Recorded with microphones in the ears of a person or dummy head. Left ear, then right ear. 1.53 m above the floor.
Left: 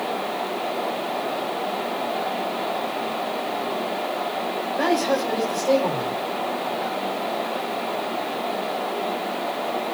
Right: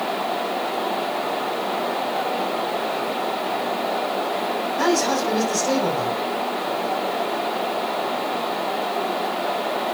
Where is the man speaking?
75° right (ahead or behind), 6.5 m.